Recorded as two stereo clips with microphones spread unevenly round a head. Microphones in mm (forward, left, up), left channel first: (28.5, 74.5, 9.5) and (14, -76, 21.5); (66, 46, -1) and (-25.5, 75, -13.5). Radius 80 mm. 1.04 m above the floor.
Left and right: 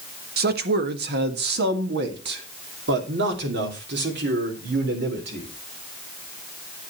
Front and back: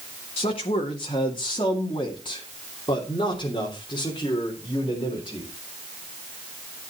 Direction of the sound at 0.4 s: 75° right.